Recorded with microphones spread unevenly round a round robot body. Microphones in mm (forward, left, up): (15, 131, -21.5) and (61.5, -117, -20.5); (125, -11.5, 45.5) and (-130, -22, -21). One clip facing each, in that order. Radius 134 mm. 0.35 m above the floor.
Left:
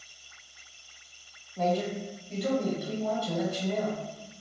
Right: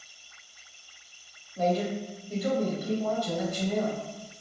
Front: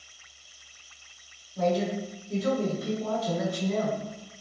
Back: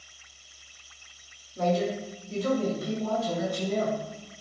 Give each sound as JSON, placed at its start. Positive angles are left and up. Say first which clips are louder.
{"t": 1.6, "sound": "a man speaking", "louder": "right 1 dB, even", "azimuth_deg": -30, "distance_m": 1.8}